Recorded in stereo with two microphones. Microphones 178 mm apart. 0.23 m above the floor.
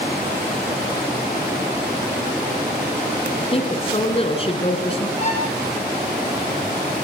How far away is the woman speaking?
About 3 m.